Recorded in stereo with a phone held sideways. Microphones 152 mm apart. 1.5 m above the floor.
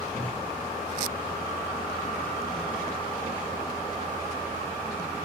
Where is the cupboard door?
15° right (ahead or behind), 9 m.